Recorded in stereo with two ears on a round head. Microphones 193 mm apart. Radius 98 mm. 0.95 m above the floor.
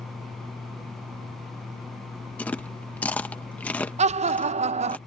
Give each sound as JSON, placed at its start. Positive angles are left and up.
{"t": 2.4, "sound": "chewing", "side_deg": 10}
{"t": 4.0, "sound": "laughter", "side_deg": -30}